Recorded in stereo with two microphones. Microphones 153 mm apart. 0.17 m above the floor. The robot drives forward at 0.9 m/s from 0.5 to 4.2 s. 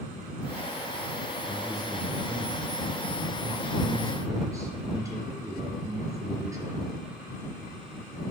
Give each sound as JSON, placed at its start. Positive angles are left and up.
{"t": 1.5, "sound": "a man speaking", "side_deg": -15, "distance_m": 6.0}